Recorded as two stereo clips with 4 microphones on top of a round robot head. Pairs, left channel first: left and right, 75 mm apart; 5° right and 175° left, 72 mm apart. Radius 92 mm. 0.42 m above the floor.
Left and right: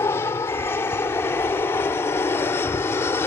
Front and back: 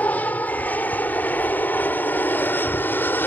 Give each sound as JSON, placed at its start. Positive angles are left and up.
{"t": 0.0, "sound": "an aircraft", "azimuth_deg": 55}